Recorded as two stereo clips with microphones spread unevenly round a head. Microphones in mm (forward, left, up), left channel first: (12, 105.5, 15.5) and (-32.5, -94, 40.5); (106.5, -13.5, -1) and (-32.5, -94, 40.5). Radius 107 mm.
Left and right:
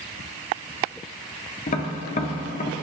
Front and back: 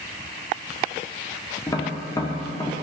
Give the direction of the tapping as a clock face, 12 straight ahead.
8 o'clock.